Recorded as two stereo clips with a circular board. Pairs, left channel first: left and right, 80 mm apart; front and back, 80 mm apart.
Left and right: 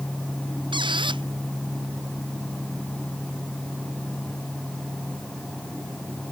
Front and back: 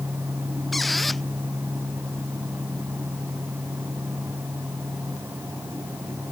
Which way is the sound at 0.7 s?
90° right.